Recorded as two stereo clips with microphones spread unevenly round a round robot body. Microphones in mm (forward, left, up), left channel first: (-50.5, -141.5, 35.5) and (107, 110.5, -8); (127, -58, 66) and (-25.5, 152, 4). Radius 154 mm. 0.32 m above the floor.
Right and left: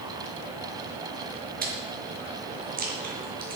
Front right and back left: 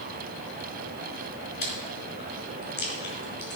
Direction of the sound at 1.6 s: Straight ahead.